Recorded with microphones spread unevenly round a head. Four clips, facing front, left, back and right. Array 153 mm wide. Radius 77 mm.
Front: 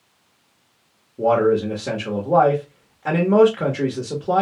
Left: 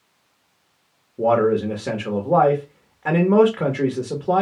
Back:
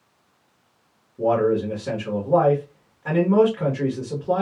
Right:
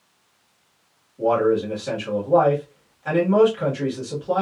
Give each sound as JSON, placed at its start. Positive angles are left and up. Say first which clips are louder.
{"t": 1.2, "sound": "a man speaking", "louder": "left 1 dB, front 3 dB", "azimuth_deg": 60, "distance_m": 1.0}